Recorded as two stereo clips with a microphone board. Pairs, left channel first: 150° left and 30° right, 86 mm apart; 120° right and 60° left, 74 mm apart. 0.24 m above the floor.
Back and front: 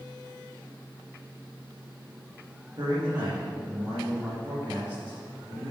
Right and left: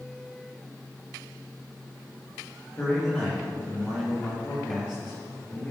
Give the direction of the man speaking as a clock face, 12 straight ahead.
2 o'clock.